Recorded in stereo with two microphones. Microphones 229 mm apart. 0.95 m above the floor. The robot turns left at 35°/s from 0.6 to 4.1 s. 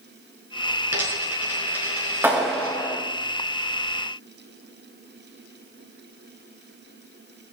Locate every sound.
0.9 s a dropped coin: 80° right, 4.5 m; by 2.8 s 35° right (ahead or behind), 4.5 m
2.2 s a clap: 10° right (ahead or behind), 4.5 m; by 3.0 s 15° left (ahead or behind), 4.5 m